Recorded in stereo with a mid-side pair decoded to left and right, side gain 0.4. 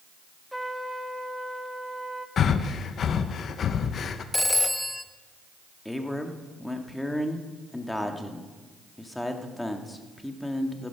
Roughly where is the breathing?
Ahead left.